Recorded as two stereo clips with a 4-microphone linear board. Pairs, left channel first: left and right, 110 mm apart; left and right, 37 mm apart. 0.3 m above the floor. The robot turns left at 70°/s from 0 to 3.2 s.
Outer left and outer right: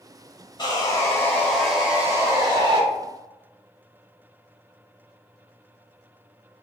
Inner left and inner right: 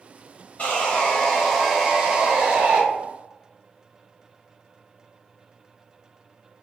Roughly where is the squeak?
No squeak in this recording.